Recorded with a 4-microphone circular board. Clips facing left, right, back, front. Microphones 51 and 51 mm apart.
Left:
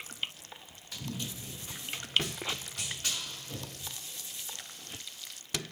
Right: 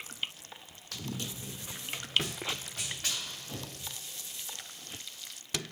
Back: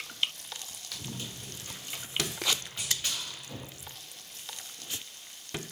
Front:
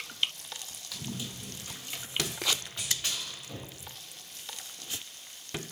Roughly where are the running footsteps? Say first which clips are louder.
Even, front 2 dB; right.